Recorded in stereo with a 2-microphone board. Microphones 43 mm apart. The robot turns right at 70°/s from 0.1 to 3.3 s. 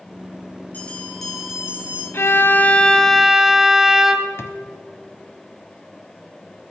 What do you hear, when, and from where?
0.7 s a bell: 140° left, 4 m; by 2.0 s 130° right, 4 m
2.1 s a violin: 110° left, 1.0 m; by 4.3 s 170° right, 1.0 m
4.4 s a drawer: 80° left, 1.0 m